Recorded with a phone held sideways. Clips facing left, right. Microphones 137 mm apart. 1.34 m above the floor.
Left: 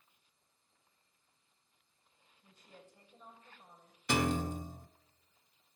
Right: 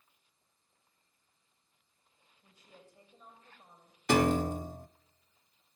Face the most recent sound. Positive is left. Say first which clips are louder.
# right 6 dB
turn(degrees=-55)  # may be behind; listen again after turning